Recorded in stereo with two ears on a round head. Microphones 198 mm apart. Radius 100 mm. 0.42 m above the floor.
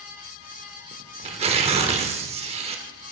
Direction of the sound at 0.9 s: 30° right (ahead or behind).